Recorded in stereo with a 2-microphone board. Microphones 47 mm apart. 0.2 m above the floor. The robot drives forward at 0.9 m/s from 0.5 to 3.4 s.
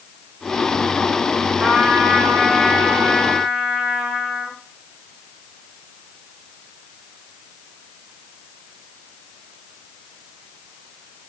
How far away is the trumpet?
About 3 m.